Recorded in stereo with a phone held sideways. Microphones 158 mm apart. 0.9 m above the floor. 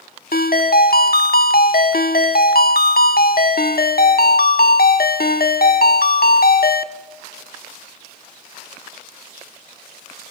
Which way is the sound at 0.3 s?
70° left (ahead or behind).